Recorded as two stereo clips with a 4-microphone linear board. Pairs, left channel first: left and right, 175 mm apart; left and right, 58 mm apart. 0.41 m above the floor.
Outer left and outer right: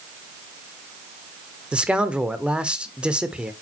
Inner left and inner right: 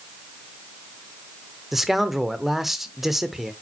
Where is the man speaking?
5° right (ahead or behind), 0.8 m.